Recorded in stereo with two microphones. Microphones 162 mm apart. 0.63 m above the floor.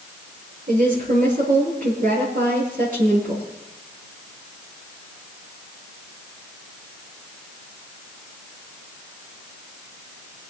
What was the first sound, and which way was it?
A woman speaking, 60° right (ahead or behind).